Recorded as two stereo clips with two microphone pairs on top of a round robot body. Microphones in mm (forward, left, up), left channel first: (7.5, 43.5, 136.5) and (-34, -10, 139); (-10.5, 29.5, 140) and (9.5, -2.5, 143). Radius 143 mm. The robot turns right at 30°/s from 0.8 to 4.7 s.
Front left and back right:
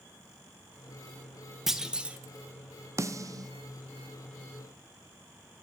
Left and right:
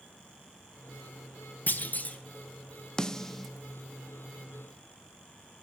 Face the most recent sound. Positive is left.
turn(degrees=-120)